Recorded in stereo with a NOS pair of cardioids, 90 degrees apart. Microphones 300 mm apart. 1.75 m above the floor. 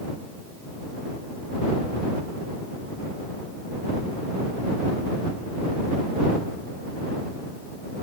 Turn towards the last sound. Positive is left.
No sound to turn to.